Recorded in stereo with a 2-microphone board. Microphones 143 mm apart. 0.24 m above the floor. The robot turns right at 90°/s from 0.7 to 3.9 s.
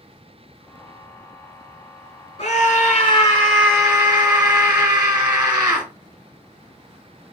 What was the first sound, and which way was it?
A scream, 55° left.